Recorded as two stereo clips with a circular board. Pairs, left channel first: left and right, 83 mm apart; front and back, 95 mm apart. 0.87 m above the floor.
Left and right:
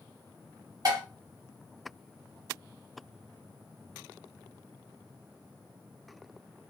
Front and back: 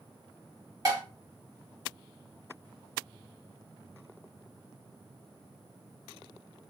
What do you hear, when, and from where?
0.8 s dishes clattering: 130° right, 1.6 m